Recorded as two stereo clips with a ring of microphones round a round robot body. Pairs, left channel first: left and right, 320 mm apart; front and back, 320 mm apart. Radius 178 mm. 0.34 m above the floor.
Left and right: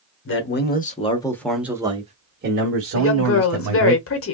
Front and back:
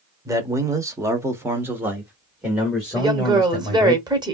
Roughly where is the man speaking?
Left.